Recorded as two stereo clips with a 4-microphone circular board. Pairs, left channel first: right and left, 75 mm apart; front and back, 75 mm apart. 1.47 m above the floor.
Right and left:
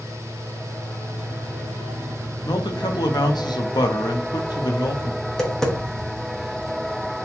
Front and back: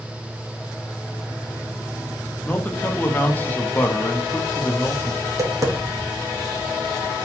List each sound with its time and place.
2.5 s a man speaking: 65° right, 0.8 m
5.2 s tapping: 170° right, 1.0 m